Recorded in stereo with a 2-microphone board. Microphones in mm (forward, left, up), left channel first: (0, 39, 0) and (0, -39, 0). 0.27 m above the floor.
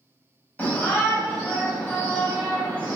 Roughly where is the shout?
Left.